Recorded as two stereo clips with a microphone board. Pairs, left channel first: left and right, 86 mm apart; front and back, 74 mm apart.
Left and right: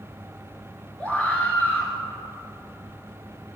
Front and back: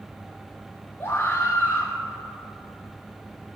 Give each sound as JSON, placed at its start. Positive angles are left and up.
{"t": 1.0, "sound": "a scream", "azimuth_deg": 25, "distance_m": 1.3}